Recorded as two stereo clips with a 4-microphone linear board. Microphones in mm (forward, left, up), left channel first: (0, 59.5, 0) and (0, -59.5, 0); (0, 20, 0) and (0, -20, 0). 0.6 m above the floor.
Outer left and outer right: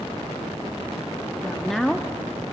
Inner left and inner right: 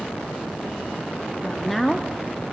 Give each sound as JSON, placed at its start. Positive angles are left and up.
{"t": 1.4, "sound": "a woman speaking", "side_deg": 5, "distance_m": 0.6}